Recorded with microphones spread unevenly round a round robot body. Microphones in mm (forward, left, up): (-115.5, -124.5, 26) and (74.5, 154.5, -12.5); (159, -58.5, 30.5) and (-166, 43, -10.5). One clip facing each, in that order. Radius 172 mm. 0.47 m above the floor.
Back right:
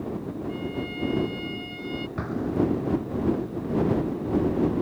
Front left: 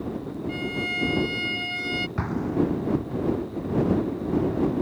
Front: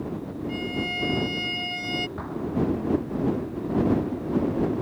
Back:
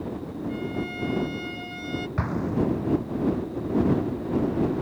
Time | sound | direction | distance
0.5 | a violin | 45° left | ?
2.2 | an explosion | 130° left | ?